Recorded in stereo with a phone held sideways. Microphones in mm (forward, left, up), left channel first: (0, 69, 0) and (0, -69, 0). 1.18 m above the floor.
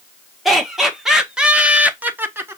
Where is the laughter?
Centre (ahead or behind), 1.6 m; by 2.6 s 15° right (ahead or behind), 0.6 m.